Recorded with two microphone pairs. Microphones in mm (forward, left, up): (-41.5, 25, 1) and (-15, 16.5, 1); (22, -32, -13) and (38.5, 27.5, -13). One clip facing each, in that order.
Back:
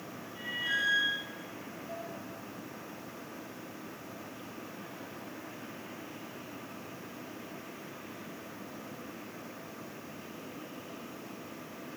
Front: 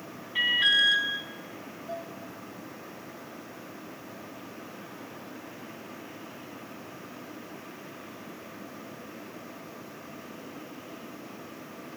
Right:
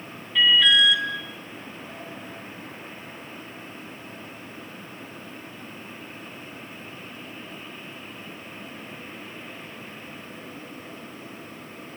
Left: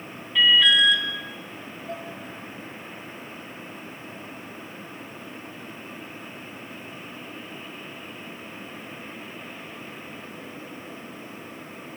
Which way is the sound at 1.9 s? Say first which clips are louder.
Front 5 dB, left 4 dB; 35° left.